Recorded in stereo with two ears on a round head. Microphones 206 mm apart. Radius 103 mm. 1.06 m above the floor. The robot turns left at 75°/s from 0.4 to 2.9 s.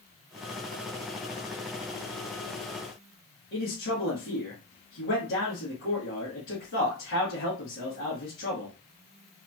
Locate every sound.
3.5 s a man speaking: 55° left (ahead or behind), 1.4 m